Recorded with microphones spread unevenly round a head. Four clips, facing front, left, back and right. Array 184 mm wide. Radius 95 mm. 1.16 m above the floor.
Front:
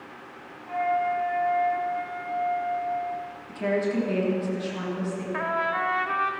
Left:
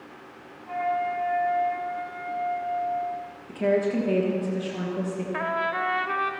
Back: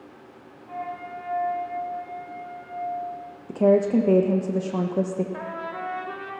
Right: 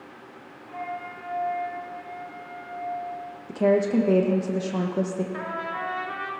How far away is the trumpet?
About 1.0 m.